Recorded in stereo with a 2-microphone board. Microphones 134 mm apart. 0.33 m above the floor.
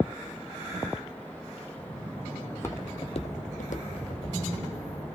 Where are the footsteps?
10° left (ahead or behind), 0.8 m; by 4.4 s 70° left (ahead or behind), 1.2 m.